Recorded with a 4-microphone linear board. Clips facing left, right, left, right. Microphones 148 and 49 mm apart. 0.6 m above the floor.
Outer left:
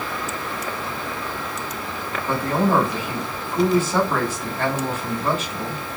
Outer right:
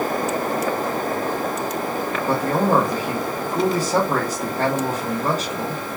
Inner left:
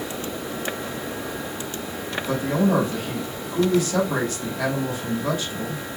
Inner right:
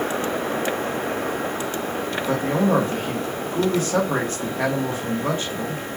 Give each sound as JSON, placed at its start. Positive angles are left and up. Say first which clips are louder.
{"t": 2.3, "sound": "a man speaking", "louder": "outer right 1 dB, inner right 1 dB", "side_deg": -40, "distance_m": 1.0}